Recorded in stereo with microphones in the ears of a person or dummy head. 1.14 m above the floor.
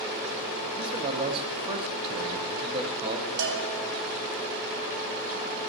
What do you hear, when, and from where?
0.8 s a man speaking: 25° right (ahead or behind), 1.2 m
3.4 s a bell: 60° right (ahead or behind), 1.6 m